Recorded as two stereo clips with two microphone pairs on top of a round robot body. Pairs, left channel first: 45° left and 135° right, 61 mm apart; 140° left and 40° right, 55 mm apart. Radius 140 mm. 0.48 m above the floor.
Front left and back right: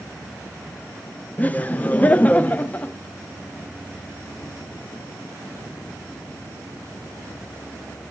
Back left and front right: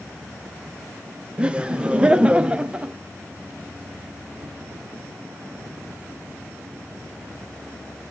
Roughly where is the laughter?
Ahead.